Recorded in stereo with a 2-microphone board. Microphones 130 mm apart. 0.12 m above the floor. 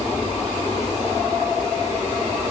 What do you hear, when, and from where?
Only background noise.